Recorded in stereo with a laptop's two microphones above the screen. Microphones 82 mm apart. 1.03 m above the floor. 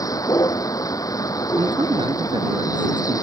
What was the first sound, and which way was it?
A vehicle, 45° left (ahead or behind).